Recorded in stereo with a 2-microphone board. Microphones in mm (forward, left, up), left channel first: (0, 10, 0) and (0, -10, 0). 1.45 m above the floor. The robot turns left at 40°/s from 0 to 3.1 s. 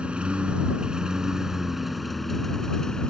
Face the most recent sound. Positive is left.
turn(degrees=135)